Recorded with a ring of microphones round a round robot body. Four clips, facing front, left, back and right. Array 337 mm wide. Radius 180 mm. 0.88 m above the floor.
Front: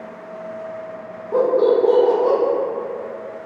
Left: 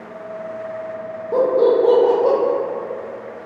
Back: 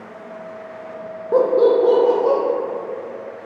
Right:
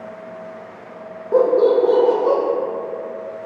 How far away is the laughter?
About 0.5 m.